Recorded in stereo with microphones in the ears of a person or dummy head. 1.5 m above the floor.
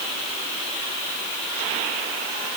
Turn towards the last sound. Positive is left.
No sound to turn to.